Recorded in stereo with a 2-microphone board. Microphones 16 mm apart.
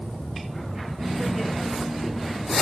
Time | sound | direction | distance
1.0 | laughter | 10° right (ahead or behind) | 1.9 m